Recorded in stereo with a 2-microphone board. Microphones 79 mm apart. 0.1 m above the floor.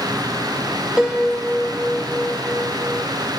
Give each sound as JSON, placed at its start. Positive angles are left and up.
{"t": 1.0, "sound": "a piano", "side_deg": -10, "distance_m": 2.5}